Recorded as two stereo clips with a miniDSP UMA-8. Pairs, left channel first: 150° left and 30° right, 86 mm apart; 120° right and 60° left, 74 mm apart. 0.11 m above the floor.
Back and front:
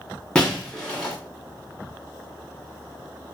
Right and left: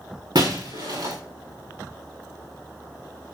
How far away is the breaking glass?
About 5.5 m.